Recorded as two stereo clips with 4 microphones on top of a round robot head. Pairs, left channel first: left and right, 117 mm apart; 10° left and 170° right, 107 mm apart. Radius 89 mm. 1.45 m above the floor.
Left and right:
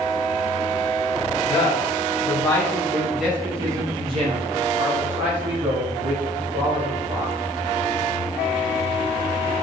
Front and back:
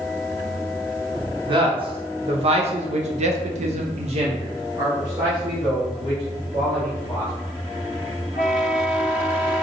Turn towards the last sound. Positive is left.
turn(degrees=-80)